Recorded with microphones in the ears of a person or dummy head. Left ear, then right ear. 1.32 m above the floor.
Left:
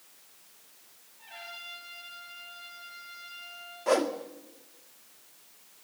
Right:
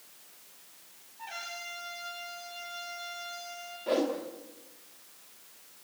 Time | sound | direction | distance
1.2 | a trumpet | 55° right (ahead or behind) | 7 m
3.9 | a whoosh | 40° left (ahead or behind) | 1.5 m